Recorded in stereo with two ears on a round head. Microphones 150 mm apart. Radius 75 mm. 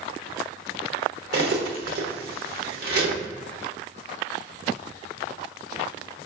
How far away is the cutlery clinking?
About 1.0 m.